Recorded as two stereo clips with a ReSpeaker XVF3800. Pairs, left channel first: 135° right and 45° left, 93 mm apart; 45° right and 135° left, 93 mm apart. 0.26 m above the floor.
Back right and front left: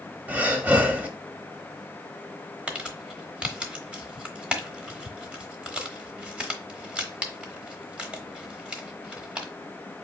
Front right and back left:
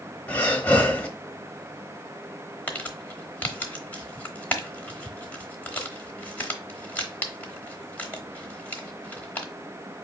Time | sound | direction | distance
0.3 | breathing | straight ahead | 0.9 m
2.7 | crumpling | 10° right | 0.9 m